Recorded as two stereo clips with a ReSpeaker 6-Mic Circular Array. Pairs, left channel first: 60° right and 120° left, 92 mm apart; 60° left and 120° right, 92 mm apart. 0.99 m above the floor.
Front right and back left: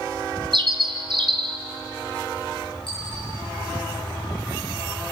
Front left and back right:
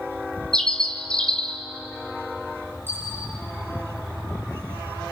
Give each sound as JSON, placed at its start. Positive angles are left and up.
{"t": 0.5, "sound": "a bird", "azimuth_deg": 140, "distance_m": 2.5}
{"t": 2.9, "sound": "a dropped coin", "azimuth_deg": -55, "distance_m": 7.5}